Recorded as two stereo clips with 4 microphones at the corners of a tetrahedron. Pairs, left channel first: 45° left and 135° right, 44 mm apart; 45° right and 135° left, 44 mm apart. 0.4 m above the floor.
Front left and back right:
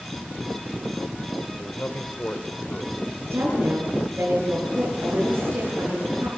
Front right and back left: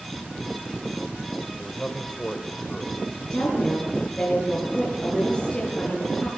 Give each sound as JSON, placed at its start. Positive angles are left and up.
{"t": 1.6, "sound": "a man speaking", "azimuth_deg": 20, "distance_m": 1.7}
{"t": 3.3, "sound": "a woman speaking", "azimuth_deg": -115, "distance_m": 8.5}